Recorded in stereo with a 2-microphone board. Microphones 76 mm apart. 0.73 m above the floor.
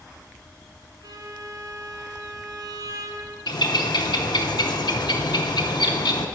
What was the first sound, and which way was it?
A violin, 55° right (ahead or behind).